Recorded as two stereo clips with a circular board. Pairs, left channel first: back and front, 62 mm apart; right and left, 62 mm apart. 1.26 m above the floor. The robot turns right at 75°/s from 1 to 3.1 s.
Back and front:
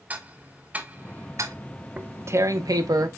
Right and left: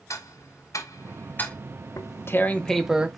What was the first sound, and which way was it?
Ticking, 65° right.